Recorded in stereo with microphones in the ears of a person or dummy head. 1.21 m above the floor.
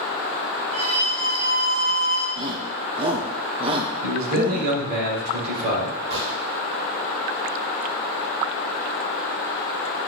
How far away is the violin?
About 1.7 m.